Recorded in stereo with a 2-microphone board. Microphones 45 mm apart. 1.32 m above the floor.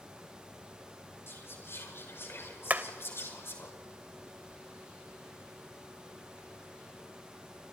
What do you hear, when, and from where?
1.3 s whispering: 65° left (ahead or behind), 5.5 m
2.7 s hammering: 40° right (ahead or behind), 1.3 m